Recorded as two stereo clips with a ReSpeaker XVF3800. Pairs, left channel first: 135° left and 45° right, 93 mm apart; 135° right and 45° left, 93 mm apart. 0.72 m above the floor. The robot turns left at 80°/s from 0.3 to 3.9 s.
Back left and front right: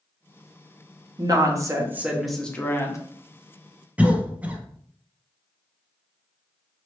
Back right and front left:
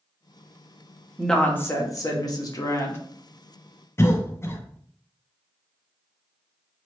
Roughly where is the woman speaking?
Ahead right.